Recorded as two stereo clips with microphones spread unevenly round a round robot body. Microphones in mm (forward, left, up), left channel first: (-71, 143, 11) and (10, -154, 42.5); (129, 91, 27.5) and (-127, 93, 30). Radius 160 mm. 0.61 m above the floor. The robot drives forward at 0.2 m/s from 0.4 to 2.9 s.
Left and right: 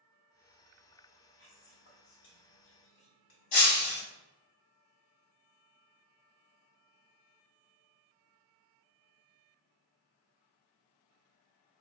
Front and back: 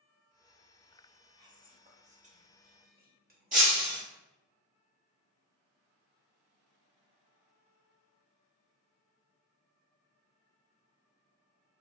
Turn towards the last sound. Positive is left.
turn(degrees=120)